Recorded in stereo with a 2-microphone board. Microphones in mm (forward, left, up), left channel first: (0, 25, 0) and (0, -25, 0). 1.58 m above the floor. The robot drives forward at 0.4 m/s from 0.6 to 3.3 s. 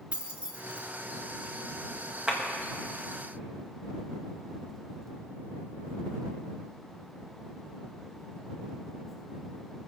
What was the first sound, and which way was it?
Keys jangling, 20° right (ahead or behind).